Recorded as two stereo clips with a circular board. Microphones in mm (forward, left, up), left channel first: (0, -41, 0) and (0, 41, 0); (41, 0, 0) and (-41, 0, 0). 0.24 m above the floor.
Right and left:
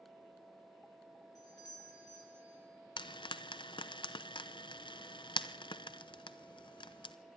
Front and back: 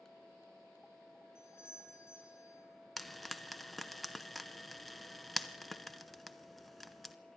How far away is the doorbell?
About 4 m.